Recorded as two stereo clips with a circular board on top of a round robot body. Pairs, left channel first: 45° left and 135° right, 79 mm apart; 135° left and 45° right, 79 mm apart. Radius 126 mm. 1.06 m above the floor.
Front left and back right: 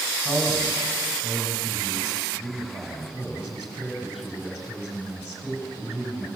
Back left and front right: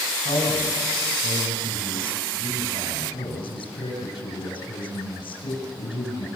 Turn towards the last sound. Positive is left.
turn(degrees=145)